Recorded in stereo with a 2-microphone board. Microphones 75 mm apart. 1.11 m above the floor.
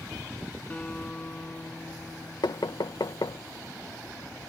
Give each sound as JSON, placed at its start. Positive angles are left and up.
{"t": 0.7, "sound": "a guitar", "side_deg": 15}
{"t": 2.4, "sound": "knocking", "side_deg": 70}